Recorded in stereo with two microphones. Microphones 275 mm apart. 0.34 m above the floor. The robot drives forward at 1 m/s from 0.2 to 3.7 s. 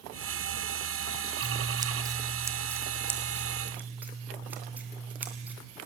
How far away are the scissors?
About 1.0 m.